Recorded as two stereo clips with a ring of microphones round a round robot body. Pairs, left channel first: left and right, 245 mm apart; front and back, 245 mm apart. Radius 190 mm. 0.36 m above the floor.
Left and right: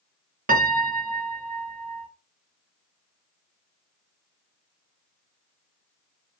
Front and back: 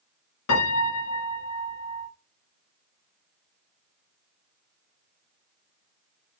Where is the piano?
35° right, 1.5 m.